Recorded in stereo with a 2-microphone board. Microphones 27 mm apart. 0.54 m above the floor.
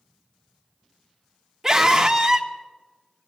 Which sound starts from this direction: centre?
A scream, at 1.6 s.